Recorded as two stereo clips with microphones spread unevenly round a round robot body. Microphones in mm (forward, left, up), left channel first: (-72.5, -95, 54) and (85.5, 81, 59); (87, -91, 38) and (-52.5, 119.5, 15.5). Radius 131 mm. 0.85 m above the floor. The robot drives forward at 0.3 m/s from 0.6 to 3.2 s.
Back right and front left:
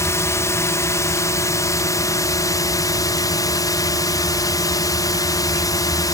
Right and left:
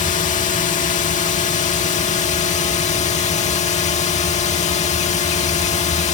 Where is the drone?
70° right; by 6.2 s 80° right.